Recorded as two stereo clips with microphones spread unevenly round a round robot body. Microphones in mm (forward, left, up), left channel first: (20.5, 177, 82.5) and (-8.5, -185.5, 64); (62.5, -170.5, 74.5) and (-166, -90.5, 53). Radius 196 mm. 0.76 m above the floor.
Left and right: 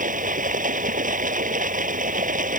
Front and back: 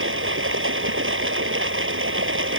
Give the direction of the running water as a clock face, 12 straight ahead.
5 o'clock.